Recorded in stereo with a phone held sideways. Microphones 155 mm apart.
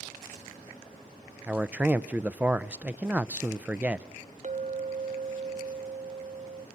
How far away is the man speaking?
About 0.6 m.